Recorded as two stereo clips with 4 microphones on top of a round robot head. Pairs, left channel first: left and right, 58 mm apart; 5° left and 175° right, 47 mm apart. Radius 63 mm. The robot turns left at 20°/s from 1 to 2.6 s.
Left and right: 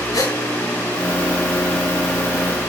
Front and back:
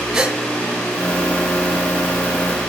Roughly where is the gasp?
Left.